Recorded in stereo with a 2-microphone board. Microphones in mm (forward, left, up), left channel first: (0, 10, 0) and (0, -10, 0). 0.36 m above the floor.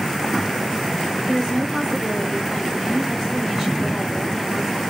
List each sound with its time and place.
1.3 s a woman speaking: 5° left (ahead or behind), 1.4 m